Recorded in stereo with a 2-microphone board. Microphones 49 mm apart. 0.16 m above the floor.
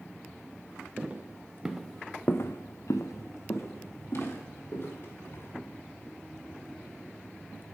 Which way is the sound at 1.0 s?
30° right (ahead or behind).